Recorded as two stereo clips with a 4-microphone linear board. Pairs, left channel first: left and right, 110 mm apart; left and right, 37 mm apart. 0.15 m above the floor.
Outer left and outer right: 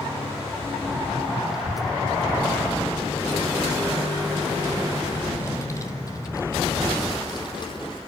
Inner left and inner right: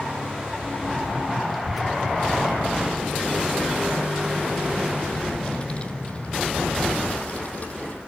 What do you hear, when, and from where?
1.5 s a child speaking: 5° right (ahead or behind), 4.5 m; by 8.0 s 45° left (ahead or behind), 4 m